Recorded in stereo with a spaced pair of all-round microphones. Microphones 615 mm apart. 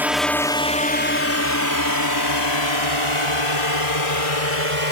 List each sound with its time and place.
0.0 s a drone: 5° right (ahead or behind); by 4.9 s 65° left (ahead or behind)